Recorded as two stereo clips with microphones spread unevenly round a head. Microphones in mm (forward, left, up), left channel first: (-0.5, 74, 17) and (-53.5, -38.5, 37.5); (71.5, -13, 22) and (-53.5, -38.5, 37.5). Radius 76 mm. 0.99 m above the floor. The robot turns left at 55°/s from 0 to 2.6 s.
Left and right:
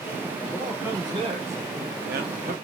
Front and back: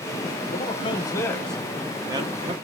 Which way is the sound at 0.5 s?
20° right.